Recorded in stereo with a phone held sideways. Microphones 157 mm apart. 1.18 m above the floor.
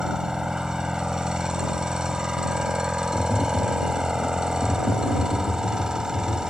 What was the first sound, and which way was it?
A machine running, 5° right (ahead or behind).